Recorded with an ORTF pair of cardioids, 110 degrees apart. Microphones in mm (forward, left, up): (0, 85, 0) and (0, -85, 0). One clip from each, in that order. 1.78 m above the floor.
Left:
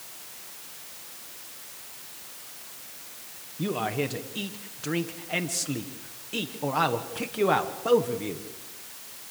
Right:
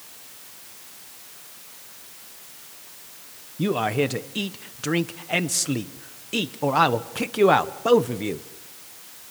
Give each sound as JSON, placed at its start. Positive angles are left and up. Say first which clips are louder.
{"t": 3.6, "sound": "a man speaking", "louder": "right 6 dB", "azimuth_deg": -35, "distance_m": 1.1}